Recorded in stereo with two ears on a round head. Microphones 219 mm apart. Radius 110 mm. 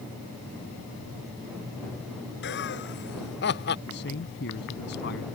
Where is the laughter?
50° left (ahead or behind); by 3.8 s 45° left (ahead or behind).